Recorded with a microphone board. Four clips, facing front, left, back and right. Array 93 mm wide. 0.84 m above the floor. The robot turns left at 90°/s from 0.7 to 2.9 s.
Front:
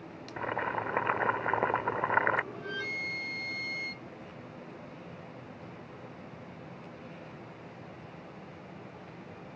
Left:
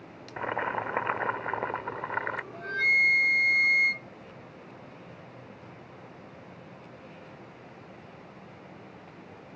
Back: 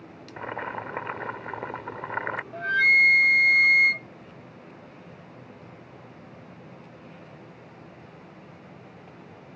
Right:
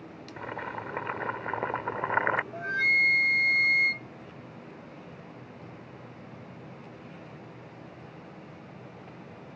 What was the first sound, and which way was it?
Boiling, 85° left.